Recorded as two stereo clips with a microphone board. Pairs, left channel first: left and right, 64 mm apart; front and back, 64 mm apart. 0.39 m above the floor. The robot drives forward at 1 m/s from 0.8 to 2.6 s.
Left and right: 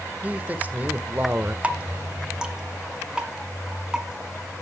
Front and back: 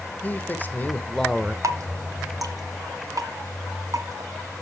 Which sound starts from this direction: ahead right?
A man speaking, at 0.2 s.